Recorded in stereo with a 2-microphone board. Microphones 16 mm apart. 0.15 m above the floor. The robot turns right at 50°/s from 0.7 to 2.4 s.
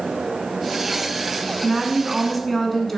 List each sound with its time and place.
1.6 s a woman speaking: 10° right (ahead or behind), 1.2 m; by 3.0 s 10° left (ahead or behind), 1.2 m